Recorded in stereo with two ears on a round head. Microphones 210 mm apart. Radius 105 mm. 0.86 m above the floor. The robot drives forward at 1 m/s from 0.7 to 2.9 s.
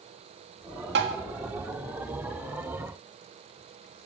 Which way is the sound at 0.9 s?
50° right (ahead or behind).